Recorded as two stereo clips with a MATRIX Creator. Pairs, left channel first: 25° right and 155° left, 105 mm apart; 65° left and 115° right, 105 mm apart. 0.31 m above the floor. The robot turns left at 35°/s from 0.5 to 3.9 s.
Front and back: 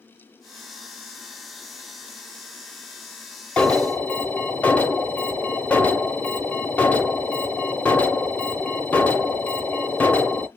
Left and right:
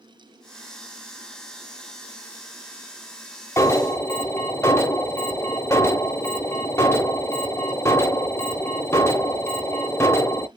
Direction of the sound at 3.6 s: 50° left.